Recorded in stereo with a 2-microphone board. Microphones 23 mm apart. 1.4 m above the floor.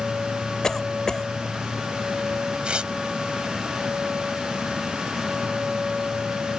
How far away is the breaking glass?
I don't hear breaking glass.